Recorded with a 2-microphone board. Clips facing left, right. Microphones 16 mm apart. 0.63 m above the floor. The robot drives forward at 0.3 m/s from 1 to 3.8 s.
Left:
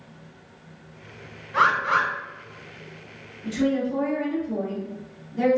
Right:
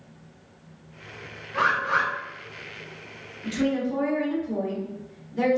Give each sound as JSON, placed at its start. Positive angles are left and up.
{"t": 1.5, "sound": "a bird", "side_deg": 60, "distance_m": 1.2}
{"t": 3.4, "sound": "a woman speaking", "side_deg": -15, "distance_m": 1.0}